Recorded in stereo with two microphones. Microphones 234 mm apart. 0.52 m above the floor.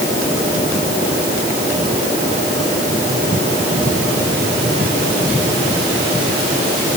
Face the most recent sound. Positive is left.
No sound to turn to.